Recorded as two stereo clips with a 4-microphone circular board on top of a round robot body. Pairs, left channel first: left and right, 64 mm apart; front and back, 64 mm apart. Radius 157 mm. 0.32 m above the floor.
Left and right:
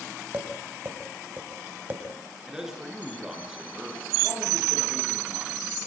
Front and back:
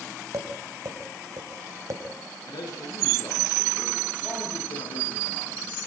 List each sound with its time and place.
0.3 s tapping: 150° right, 3.5 m
2.5 s a man speaking: 10° right, 7 m